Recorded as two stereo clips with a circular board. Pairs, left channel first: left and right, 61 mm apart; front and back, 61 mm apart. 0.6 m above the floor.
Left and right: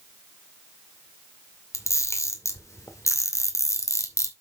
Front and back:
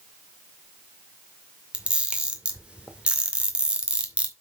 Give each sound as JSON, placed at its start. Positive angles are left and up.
{"t": 1.7, "sound": "a camera shutter", "azimuth_deg": 110, "distance_m": 2.0}